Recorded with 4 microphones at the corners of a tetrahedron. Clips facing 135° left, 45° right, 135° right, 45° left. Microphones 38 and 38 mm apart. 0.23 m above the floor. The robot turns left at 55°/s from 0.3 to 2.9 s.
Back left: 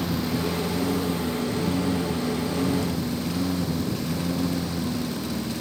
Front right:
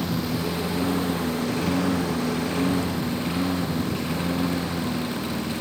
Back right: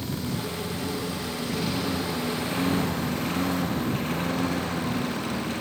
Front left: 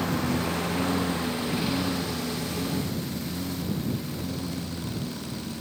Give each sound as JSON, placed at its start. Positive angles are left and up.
{"t": 0.0, "sound": "a lawn mower", "azimuth_deg": 40}